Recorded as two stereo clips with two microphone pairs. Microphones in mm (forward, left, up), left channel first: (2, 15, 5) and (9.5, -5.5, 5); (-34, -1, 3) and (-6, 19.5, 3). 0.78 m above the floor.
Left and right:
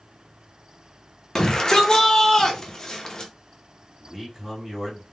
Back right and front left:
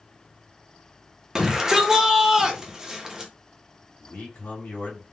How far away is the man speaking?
About 2.0 m.